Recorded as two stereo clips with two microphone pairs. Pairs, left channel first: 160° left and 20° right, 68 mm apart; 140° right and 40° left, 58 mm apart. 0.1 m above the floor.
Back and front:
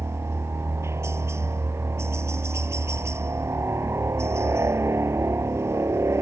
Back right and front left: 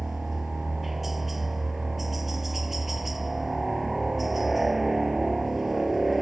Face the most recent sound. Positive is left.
turn(degrees=-45)